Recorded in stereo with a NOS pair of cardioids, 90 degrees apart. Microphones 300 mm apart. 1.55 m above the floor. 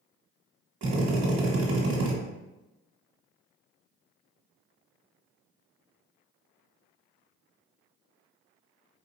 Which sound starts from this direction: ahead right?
A drill, at 0.8 s.